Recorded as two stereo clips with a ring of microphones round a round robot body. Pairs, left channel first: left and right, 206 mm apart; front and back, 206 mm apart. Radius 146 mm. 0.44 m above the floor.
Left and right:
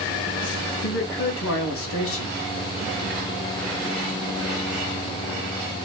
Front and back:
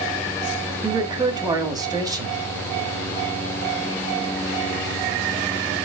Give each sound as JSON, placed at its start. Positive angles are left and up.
{"t": 0.8, "sound": "a man speaking", "azimuth_deg": 110, "distance_m": 2.5}